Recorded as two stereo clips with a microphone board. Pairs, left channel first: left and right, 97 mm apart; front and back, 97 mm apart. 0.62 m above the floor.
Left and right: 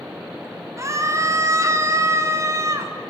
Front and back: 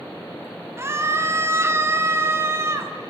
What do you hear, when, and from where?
0.8 s a scream: 130° right, 1.3 m